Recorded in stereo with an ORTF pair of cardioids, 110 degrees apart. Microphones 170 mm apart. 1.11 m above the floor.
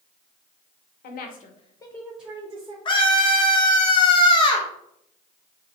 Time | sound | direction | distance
1.0 | a woman speaking | 70° left | 0.8 m
2.9 | a scream | 30° left | 0.8 m